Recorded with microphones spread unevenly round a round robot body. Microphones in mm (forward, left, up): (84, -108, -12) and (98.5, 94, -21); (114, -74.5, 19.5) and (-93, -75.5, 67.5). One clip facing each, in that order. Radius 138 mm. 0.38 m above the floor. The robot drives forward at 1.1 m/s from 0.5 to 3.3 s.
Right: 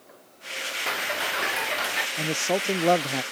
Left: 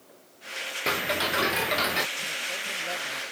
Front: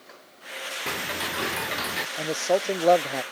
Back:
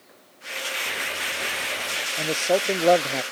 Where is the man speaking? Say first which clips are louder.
Right 14 dB, back 1 dB; 100° right.